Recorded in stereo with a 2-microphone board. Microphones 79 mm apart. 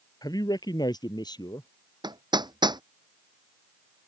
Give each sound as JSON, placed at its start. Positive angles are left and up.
{"t": 0.2, "sound": "a man speaking", "side_deg": 55}
{"t": 2.0, "sound": "hammering", "side_deg": -65}